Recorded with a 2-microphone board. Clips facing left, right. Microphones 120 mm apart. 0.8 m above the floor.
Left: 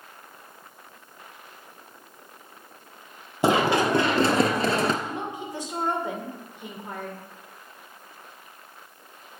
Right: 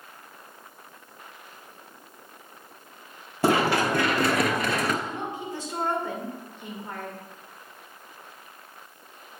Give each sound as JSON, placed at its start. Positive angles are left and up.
{"t": 3.4, "sound": "running footsteps", "side_deg": 20, "distance_m": 1.3}
{"t": 5.0, "sound": "a woman speaking", "side_deg": 15, "distance_m": 2.5}